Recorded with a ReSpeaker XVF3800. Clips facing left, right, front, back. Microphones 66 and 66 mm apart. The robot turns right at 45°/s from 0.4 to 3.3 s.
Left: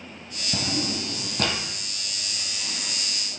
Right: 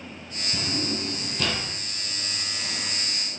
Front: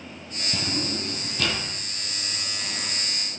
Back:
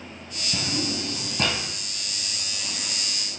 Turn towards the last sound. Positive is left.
turn(degrees=-150)